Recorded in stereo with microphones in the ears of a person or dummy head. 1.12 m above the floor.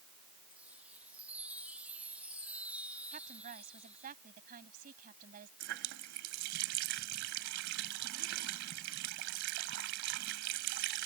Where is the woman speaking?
45° right (ahead or behind).